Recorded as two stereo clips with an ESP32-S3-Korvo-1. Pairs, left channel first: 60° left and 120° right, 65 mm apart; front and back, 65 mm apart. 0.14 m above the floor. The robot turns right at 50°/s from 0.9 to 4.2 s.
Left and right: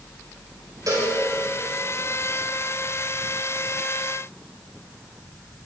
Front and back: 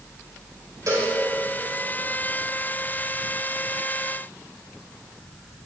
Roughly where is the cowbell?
Behind right.